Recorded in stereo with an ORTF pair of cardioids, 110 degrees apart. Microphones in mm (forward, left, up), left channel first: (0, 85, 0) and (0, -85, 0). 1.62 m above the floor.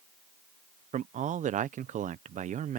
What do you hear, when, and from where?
0.9 s a man speaking: 45° right